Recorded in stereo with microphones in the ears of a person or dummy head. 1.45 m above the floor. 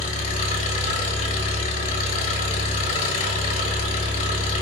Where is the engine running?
45° left (ahead or behind), 1.1 m.